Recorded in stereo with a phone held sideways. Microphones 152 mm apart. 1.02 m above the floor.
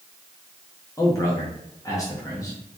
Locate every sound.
1.0 s a man speaking: 20° left (ahead or behind), 1.1 m